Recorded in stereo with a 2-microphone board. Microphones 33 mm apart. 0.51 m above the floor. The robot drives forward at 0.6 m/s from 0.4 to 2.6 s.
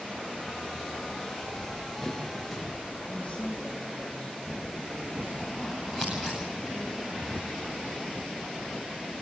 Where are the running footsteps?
5° right (ahead or behind), 3.5 m; by 3.0 s 10° left (ahead or behind), 4 m.